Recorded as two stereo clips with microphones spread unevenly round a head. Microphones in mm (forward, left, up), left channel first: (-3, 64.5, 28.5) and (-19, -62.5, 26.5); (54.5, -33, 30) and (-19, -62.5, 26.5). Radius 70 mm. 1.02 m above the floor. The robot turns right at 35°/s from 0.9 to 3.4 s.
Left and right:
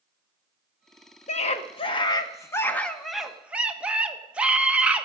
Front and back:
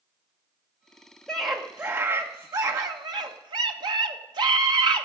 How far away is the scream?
About 1.2 m.